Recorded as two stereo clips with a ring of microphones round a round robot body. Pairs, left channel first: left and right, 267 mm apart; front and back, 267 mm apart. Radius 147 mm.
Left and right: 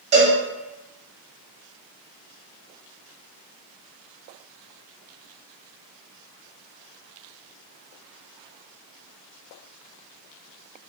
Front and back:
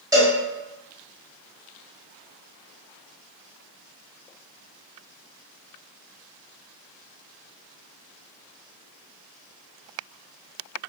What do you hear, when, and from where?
0.1 s a cowbell: 120° right, 1.0 m